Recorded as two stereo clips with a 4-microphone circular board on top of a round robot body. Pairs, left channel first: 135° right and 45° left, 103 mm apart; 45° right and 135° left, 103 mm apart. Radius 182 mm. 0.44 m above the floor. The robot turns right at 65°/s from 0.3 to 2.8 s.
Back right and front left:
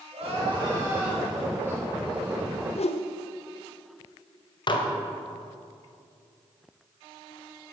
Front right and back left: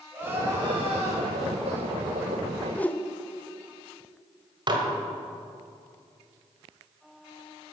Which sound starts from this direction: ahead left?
Crying, at 0.1 s.